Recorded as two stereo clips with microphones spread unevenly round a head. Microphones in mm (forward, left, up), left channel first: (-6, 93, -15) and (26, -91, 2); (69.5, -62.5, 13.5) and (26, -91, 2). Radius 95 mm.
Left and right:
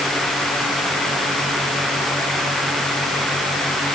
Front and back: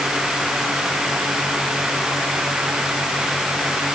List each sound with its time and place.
Only background noise.